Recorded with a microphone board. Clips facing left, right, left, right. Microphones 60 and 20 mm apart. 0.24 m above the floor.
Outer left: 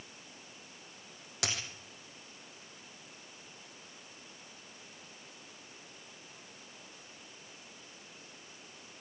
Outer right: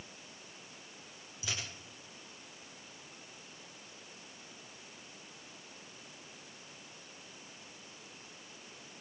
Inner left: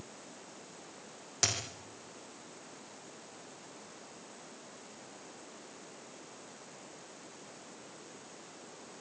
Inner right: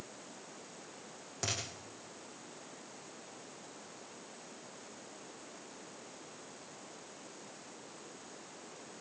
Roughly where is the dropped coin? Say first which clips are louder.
Outer left 4 dB, inner left 6 dB; left.